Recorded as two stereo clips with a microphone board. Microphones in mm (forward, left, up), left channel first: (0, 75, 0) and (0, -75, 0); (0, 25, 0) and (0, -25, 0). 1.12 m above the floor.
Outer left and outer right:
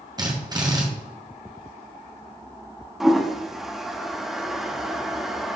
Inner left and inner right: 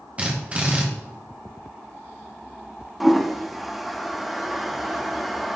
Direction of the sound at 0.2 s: 25° right (ahead or behind).